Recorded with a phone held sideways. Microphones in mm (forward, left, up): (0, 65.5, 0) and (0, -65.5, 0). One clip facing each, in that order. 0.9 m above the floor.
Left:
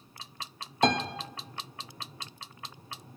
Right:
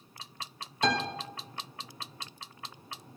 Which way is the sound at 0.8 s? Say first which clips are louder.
Left 3 dB; 50° left (ahead or behind).